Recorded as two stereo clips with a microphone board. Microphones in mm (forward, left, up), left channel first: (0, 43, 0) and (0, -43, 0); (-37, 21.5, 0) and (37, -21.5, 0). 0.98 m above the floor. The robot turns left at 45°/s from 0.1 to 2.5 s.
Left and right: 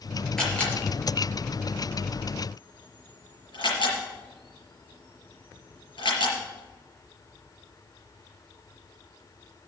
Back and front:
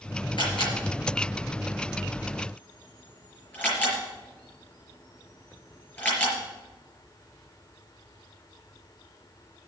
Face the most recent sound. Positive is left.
turn(degrees=80)